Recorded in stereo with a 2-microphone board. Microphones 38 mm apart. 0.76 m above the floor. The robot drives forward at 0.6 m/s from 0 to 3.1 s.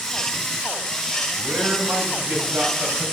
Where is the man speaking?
75° right (ahead or behind), 4 m; by 3.0 s 80° right, 3.5 m.